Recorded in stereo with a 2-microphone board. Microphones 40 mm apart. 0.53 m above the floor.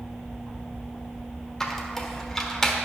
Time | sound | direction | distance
1.6 | a squeak | 10° left (ahead or behind) | 1.2 m